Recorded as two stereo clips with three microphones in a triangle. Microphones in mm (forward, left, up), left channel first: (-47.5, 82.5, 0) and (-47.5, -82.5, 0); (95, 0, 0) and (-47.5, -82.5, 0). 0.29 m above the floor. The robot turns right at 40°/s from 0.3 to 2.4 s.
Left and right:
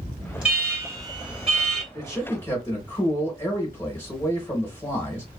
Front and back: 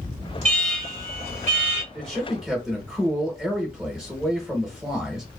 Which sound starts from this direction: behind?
An alarm, at 0.4 s.